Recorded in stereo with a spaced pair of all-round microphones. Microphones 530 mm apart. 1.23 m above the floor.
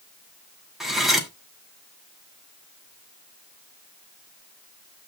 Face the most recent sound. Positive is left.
turn(degrees=0)  # may be behind; listen again after turning